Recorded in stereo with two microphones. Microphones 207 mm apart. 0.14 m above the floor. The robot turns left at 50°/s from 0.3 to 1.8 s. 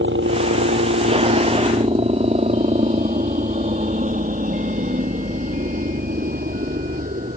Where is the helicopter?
70° right (ahead or behind); by 7.4 s 45° right (ahead or behind).